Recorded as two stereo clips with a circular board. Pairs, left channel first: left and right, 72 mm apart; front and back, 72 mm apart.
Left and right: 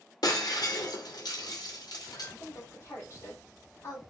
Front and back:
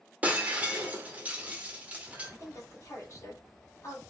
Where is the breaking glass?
110° left, 1.2 m.